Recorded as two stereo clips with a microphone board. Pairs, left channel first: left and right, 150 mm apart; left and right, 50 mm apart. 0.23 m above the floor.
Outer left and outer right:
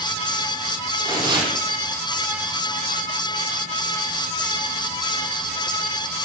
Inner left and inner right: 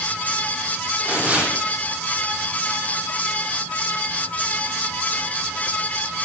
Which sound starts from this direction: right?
Tearing paper, at 1.1 s.